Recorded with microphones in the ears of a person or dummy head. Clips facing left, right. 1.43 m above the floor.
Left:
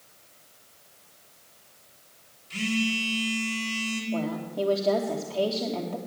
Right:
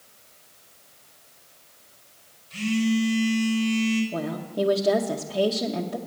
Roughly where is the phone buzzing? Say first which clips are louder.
Right 5 dB; left.